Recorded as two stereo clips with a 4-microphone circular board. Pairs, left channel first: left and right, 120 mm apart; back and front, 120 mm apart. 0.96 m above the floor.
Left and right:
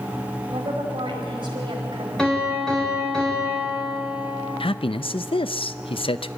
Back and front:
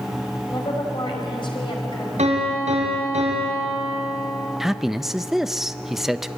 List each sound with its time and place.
0.5 s a woman speaking: 135° right, 5 m
2.2 s a piano: 5° left, 4.5 m
4.6 s a man speaking: 85° left, 0.6 m